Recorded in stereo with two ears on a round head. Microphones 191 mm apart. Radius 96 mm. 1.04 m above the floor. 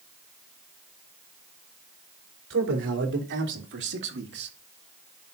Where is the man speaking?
60° right (ahead or behind), 4 m; by 4.5 s 55° right (ahead or behind), 1.6 m.